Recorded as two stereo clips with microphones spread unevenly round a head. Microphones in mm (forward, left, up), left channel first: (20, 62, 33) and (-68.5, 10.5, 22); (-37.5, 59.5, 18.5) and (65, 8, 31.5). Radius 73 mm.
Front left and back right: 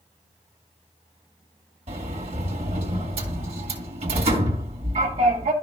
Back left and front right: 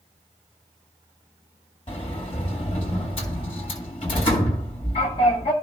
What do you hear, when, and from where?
1.9 s a sliding door: 155° right, 2 m